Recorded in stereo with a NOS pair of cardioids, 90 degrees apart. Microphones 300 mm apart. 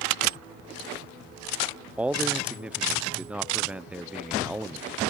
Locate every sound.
2.0 s a man speaking: 5° right, 0.6 m